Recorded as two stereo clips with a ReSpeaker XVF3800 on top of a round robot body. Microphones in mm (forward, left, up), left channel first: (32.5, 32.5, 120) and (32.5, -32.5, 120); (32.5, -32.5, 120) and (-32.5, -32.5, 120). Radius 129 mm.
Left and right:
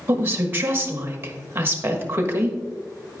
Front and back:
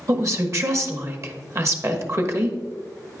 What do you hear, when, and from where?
0.1 s a woman speaking: 145° right, 1.4 m